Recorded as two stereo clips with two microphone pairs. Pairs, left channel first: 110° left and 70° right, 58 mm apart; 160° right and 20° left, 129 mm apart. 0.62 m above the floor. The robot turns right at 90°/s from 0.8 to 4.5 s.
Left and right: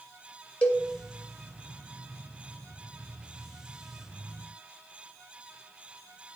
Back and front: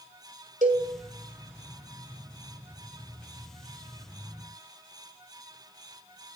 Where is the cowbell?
35° left, 1.7 m; by 0.9 s 45° left, 1.7 m.